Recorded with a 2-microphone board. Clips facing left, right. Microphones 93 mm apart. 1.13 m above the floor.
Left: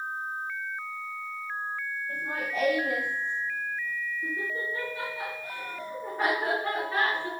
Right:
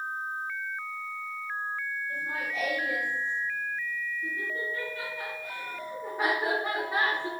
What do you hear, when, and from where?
2.1 s laughter: 50° left (ahead or behind), 4 m; by 7.3 s 20° right (ahead or behind), 2.5 m